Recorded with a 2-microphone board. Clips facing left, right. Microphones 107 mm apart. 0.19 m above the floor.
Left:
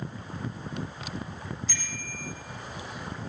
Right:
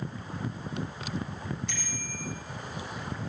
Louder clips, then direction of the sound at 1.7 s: Right 1 dB; 65° right (ahead or behind).